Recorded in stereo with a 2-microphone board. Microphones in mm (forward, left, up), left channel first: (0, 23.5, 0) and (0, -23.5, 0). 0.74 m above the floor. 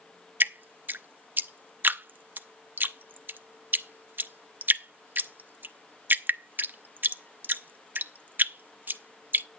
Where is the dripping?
45° right (ahead or behind), 0.7 m.